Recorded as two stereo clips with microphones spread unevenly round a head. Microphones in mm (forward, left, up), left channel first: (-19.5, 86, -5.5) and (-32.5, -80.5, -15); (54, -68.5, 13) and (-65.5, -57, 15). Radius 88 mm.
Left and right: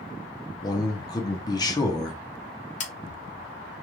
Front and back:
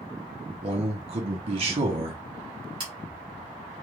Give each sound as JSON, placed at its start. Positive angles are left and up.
{"t": 0.6, "sound": "a man speaking", "azimuth_deg": 150, "distance_m": 0.6}
{"t": 2.8, "sound": "scissors", "azimuth_deg": 120, "distance_m": 0.7}